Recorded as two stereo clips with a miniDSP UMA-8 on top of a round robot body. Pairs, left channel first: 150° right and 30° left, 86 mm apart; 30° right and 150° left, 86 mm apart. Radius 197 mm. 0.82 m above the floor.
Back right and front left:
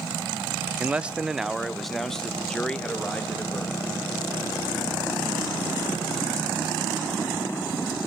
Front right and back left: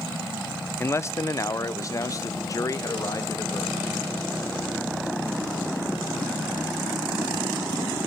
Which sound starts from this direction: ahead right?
A man speaking, at 0.8 s.